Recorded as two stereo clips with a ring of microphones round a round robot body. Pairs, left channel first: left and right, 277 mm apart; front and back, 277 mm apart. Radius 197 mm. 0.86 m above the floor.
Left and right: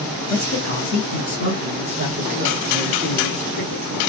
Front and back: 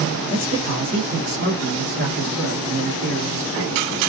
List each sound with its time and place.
0.3 s a man speaking: 115° left, 1.2 m; by 3.9 s 150° right, 1.8 m